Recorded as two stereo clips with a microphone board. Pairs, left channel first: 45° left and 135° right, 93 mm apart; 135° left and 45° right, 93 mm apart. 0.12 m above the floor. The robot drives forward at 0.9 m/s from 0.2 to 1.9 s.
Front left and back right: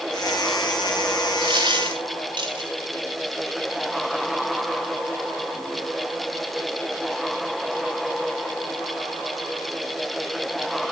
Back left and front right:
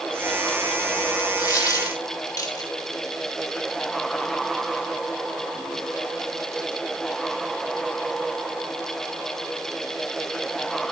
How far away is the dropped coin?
About 3 m.